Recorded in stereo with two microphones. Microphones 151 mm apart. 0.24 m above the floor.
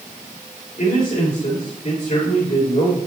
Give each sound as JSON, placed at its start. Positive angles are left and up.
{"t": 0.8, "sound": "a man speaking", "side_deg": 55, "distance_m": 4.0}